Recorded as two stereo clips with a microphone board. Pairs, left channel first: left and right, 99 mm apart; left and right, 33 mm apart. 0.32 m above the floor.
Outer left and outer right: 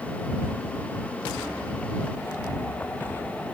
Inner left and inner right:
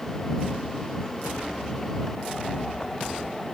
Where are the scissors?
I don't hear scissors.